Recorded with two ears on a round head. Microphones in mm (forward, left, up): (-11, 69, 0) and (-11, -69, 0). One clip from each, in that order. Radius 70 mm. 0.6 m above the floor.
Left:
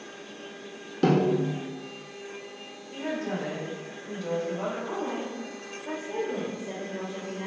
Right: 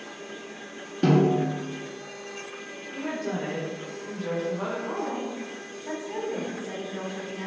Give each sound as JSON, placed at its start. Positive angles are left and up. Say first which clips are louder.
{"t": 1.0, "sound": "a snare drum", "louder": "right 1 dB", "side_deg": 25, "distance_m": 1.3}
{"t": 2.9, "sound": "a woman speaking", "louder": "even", "side_deg": 20, "distance_m": 1.1}
{"t": 4.9, "sound": "a woman speaking", "louder": "right 1 dB", "side_deg": 15, "distance_m": 1.6}